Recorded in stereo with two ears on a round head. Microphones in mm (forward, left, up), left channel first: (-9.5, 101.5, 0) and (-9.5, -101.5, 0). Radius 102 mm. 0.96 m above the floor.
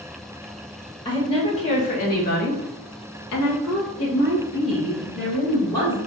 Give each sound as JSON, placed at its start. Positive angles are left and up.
{"t": 1.1, "sound": "a woman speaking", "side_deg": 20, "distance_m": 1.5}